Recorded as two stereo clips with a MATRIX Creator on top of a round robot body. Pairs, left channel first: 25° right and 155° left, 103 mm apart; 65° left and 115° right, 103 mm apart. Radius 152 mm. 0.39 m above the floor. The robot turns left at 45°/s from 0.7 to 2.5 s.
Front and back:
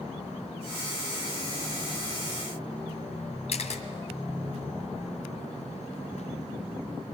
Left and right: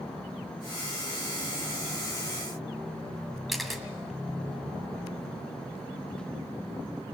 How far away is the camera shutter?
About 1.8 m.